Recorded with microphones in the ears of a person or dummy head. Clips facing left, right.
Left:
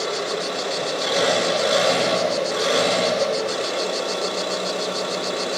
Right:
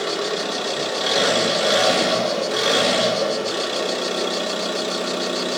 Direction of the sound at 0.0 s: 50° right (ahead or behind).